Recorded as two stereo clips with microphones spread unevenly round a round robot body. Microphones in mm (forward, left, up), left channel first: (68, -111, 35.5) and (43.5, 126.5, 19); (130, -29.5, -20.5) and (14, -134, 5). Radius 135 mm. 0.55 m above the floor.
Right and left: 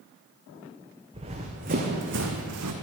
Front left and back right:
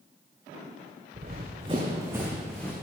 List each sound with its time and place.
1.1 s running footsteps: 170° left, 1.9 m; by 2.7 s 130° left, 1.4 m